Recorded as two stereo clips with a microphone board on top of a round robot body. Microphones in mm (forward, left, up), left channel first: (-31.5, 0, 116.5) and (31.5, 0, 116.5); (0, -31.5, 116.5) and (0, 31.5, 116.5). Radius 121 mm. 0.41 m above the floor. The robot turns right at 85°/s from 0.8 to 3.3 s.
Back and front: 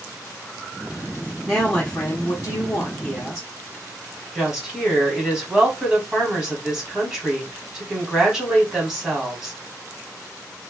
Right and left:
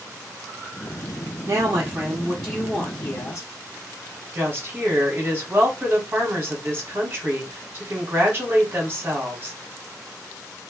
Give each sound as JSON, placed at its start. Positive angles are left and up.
{"t": 1.5, "sound": "a woman speaking", "azimuth_deg": 100, "distance_m": 1.0}
{"t": 4.3, "sound": "a woman speaking", "azimuth_deg": 70, "distance_m": 1.6}